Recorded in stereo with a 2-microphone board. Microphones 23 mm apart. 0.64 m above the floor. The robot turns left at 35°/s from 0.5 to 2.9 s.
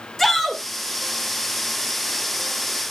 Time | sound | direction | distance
0.2 | a shout | 15° left (ahead or behind) | 2.5 m